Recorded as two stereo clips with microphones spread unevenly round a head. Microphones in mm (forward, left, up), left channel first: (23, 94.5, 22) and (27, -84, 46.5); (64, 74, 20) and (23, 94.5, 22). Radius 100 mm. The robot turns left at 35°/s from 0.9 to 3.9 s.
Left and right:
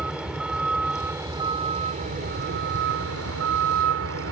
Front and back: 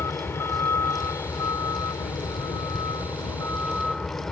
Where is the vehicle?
5° right; by 4.3 s 110° right.